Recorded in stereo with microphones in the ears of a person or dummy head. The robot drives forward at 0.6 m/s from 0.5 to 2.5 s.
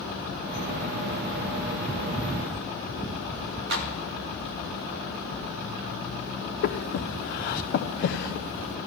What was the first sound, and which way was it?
A clap, 55° right (ahead or behind).